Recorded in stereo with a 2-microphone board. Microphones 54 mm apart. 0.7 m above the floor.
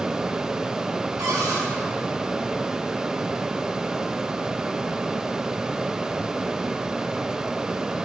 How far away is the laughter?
I don't hear laughter.